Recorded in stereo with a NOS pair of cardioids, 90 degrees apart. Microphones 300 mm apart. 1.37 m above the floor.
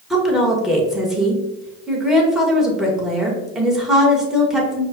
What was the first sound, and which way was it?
A woman speaking, straight ahead.